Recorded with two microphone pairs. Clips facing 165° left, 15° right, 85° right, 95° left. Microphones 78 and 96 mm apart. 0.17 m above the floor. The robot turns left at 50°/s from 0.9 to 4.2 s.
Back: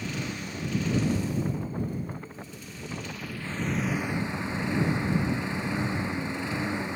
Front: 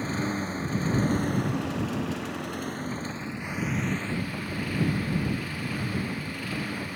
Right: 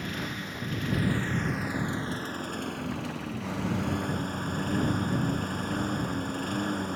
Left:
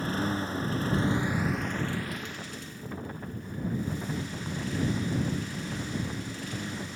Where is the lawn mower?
40° left; by 7.0 s 125° right.